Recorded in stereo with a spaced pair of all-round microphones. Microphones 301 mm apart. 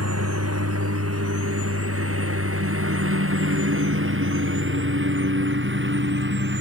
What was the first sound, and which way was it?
A lawn mower, 55° right (ahead or behind).